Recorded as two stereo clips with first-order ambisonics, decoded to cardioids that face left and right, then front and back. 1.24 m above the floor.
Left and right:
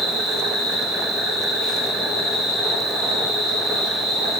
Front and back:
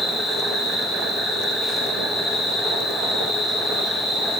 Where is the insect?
70° right, 1.5 m.